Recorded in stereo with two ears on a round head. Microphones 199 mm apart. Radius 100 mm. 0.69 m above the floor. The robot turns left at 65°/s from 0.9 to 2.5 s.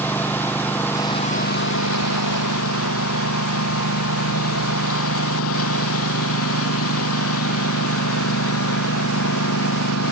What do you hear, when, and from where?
0.0 s a lawn mower: 170° left; by 10.1 s 65° left